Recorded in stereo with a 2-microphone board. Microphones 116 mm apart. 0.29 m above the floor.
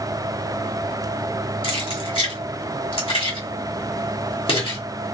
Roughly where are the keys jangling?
Left.